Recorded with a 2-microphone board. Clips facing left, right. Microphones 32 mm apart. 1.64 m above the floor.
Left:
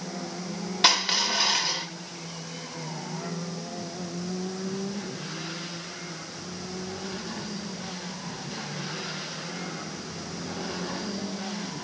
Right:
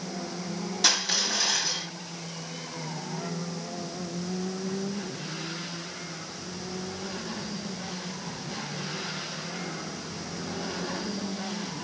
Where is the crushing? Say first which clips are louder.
Left 4 dB; 40° left (ahead or behind), 2.5 m.